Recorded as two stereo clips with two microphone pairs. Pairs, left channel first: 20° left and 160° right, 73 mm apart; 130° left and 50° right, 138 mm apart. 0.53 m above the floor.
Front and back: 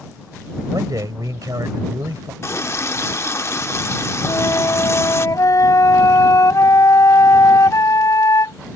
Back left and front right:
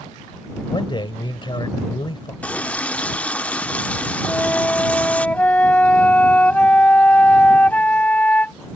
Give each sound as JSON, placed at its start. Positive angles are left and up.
{"t": 0.7, "sound": "a man speaking", "azimuth_deg": 180}
{"t": 2.4, "sound": "a running tap", "azimuth_deg": 50}
{"t": 4.3, "sound": "a flute", "azimuth_deg": 50}